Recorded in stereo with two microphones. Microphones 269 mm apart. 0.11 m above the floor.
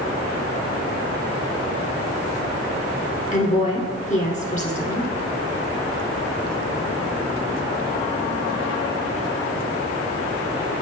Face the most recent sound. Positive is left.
turn(degrees=30)  # may be behind; listen again after turning